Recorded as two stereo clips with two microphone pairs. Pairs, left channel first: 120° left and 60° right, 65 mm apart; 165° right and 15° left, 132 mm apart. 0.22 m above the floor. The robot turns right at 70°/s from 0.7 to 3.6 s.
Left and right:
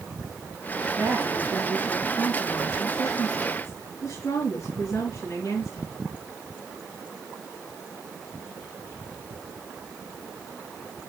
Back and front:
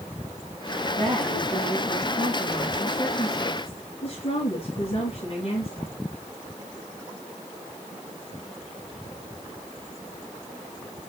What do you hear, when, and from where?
1.0 s a woman speaking: 25° right, 3.5 m; by 5.9 s 160° left, 3.5 m